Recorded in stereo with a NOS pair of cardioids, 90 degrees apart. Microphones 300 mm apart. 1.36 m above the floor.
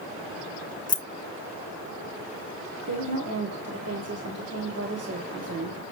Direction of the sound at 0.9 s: 25° left.